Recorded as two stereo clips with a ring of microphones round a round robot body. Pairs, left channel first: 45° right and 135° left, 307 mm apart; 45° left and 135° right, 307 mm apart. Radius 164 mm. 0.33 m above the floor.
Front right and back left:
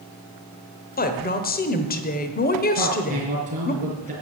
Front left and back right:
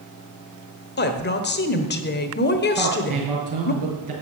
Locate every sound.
1.0 s a woman speaking: 5° left, 1.2 m
2.7 s a man speaking: 160° right, 6.5 m